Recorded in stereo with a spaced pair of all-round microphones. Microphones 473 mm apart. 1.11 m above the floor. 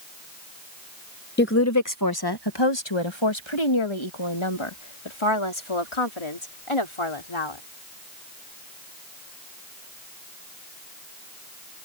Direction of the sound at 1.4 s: 20° left (ahead or behind).